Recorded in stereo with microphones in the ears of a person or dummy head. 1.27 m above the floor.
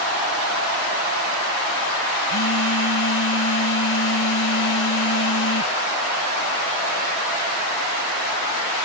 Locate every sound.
2.3 s a phone buzzing: 75° left (ahead or behind)